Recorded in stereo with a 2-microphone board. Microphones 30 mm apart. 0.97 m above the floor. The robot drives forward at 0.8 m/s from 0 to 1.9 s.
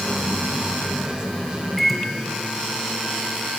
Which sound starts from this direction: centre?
A microwave, at 1.8 s.